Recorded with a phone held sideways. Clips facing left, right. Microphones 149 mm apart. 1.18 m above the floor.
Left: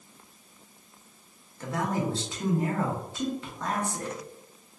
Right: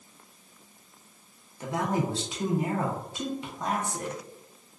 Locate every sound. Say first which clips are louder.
1.6 s a man speaking: right 1 dB; 20° right (ahead or behind), 0.7 m